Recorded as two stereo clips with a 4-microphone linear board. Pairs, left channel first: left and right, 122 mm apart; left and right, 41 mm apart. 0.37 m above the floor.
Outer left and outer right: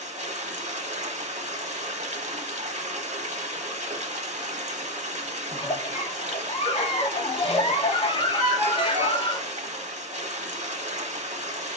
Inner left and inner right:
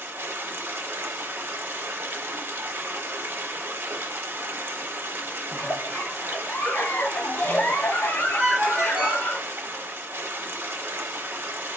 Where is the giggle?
45° left (ahead or behind), 0.6 m.